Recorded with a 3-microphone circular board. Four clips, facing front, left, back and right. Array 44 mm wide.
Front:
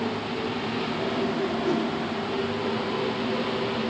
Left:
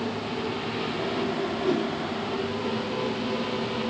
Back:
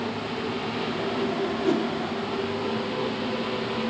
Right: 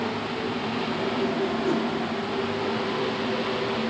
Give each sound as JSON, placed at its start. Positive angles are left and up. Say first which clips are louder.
{"t": 1.6, "sound": "a whoosh", "louder": "left 2 dB, back 3 dB", "azimuth_deg": 150, "distance_m": 5.0}